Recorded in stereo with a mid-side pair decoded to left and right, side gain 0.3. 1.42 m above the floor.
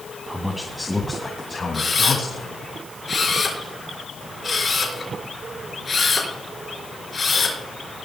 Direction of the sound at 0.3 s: 5° right.